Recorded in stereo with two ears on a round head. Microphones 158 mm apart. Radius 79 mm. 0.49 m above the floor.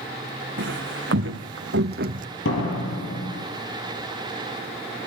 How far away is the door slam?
About 6.5 m.